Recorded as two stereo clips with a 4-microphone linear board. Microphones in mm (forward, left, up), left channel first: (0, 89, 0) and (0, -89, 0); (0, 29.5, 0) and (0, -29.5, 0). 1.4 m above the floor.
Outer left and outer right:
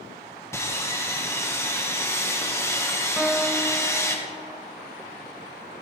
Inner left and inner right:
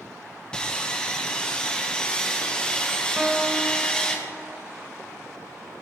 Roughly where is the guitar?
Centre.